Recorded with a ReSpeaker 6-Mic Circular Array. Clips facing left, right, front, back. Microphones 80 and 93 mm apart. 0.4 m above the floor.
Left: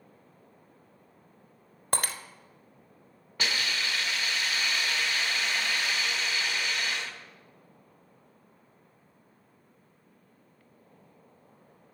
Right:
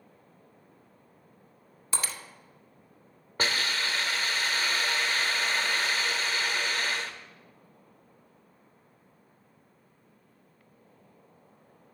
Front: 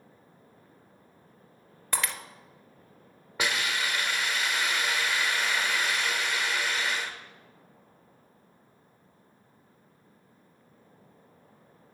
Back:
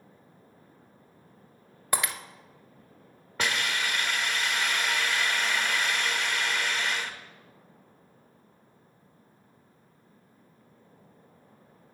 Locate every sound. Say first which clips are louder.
1.9 s breaking glass: left 4 dB, back 2 dB; 105° left, 0.6 m
3.4 s a hiss: right 2 dB, even; 75° right, 0.8 m